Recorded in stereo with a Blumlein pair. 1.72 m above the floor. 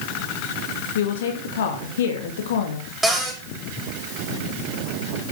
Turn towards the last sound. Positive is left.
turn(degrees=-5)